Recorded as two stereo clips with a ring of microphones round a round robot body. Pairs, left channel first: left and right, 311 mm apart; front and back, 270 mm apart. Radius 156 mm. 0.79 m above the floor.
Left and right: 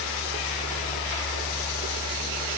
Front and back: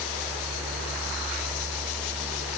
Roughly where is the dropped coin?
No dropped coin in this recording.